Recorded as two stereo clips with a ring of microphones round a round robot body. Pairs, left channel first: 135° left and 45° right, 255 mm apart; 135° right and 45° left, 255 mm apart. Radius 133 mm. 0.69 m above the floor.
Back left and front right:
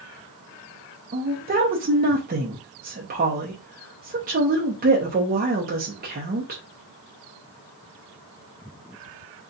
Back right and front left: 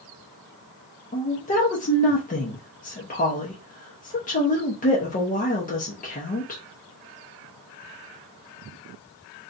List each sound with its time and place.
1.1 s a woman speaking: 85° right, 0.8 m